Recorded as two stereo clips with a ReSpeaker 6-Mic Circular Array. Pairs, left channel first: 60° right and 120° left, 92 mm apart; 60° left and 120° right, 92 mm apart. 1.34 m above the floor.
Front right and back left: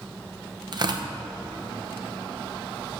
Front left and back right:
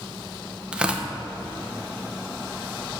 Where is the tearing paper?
160° left, 0.7 m.